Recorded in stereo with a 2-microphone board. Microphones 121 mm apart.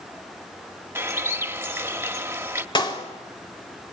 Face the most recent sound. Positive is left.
turn(degrees=40)  # may be behind; listen again after turning